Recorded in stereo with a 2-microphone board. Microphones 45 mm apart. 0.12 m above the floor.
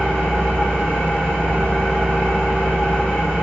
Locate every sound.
0.0 s an engine running: 25° left (ahead or behind), 3.5 m